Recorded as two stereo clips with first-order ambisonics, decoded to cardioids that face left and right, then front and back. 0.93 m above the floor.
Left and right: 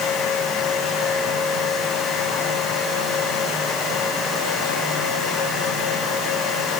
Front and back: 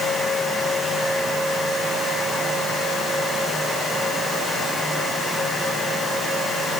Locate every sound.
Only background noise.